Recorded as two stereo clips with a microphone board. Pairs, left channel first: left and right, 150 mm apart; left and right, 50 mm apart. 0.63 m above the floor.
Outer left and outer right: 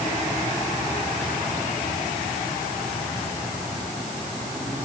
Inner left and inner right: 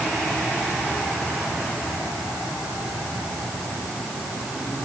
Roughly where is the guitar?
I don't hear a guitar.